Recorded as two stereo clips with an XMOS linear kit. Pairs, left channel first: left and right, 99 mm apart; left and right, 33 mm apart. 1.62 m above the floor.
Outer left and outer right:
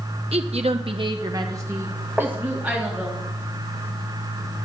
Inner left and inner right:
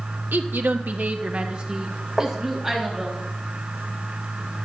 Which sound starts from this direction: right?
A woman speaking, at 0.3 s.